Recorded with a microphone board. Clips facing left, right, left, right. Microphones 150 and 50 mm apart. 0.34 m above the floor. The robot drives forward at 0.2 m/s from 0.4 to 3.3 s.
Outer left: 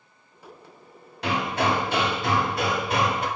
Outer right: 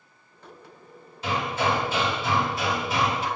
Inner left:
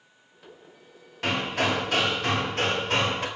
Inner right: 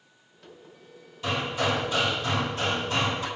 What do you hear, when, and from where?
1.2 s hammering: 70° left (ahead or behind), 2 m; by 3.3 s 60° left (ahead or behind), 2.5 m